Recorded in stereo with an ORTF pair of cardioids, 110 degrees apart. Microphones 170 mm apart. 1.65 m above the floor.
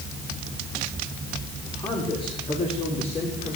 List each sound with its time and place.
1.7 s a man speaking: 25° left, 6.5 m; by 3.6 s 40° left, 6.5 m